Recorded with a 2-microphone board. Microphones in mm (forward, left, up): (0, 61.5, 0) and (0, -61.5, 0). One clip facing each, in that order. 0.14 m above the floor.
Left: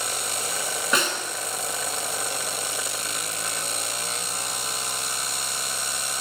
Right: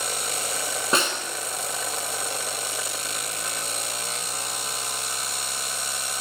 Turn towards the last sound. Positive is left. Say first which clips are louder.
# right 1 dB
turn(degrees=-30)  # may be behind; listen again after turning